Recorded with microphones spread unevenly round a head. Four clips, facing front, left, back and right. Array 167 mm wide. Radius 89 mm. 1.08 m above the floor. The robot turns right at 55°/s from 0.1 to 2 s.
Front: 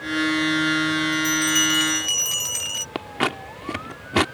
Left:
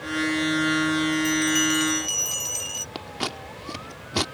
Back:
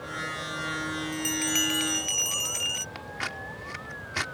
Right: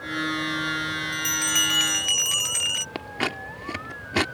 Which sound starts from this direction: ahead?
Scissors, at 3.0 s.